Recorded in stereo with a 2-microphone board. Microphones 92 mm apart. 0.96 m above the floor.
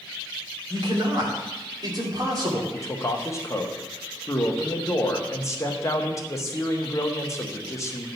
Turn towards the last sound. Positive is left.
turn(degrees=30)  # may be behind; listen again after turning